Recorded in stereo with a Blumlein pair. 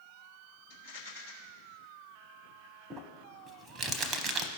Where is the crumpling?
20° right, 0.9 m.